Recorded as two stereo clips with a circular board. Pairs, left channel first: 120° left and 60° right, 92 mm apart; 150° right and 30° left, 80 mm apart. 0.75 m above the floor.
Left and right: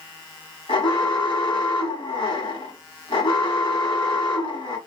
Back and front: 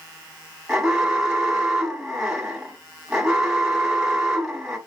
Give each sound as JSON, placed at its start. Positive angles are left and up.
{"t": 0.7, "sound": "an alarm", "azimuth_deg": 115, "distance_m": 2.0}